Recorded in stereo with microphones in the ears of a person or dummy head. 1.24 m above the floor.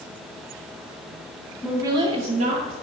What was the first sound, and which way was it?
A woman speaking, 5° right (ahead or behind).